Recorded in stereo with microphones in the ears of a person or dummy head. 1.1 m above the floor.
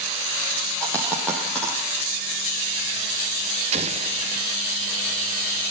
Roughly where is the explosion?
Right.